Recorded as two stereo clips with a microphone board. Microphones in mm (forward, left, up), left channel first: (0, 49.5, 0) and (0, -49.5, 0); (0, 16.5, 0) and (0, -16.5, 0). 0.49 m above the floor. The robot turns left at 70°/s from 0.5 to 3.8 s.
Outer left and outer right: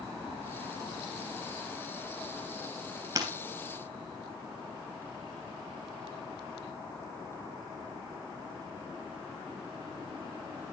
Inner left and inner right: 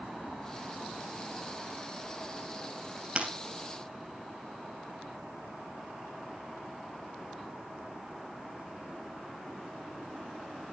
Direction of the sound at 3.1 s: 35° right (ahead or behind).